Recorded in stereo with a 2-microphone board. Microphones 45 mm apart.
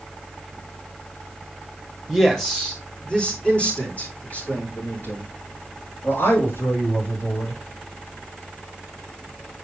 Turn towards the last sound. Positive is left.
turn(degrees=55)  # may be behind; listen again after turning